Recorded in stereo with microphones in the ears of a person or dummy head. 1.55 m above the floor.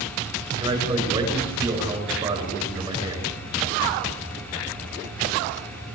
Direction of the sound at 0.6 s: 25° right (ahead or behind).